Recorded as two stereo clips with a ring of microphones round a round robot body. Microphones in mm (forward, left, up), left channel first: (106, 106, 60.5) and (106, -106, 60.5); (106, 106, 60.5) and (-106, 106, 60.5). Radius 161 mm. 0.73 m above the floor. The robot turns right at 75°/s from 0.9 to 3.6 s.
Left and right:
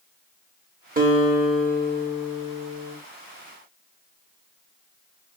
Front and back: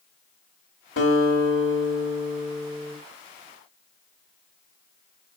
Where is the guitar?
40° right, 2 m; by 3.0 s 105° left, 2 m.